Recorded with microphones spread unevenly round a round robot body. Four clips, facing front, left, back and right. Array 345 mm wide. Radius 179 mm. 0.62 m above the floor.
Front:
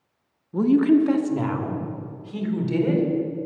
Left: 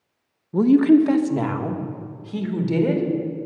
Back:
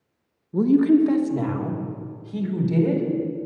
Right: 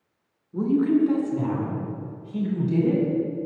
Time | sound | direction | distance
0.5 | a woman speaking | 90° left | 0.8 m